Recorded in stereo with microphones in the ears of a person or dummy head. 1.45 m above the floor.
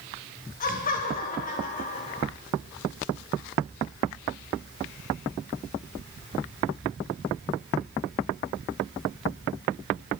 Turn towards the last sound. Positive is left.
turn(degrees=50)  # may be behind; listen again after turning